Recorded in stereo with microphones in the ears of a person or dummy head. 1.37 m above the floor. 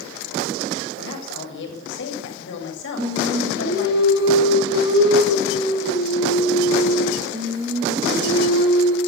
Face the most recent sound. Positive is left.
turn(degrees=-30)  # may be behind; listen again after turning